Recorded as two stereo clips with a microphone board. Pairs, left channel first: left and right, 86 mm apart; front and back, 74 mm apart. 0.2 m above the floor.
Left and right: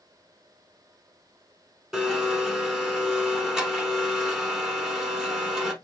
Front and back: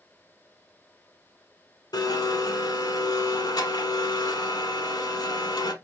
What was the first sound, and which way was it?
A blender, 5° right.